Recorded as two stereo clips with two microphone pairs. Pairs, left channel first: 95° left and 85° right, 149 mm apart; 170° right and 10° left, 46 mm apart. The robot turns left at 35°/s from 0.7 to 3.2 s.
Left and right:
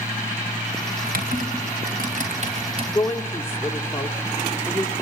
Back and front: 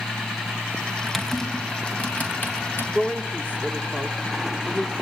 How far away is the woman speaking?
About 1.1 m.